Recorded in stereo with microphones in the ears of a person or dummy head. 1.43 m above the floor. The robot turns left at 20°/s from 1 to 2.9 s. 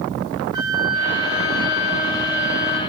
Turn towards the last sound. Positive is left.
turn(degrees=165)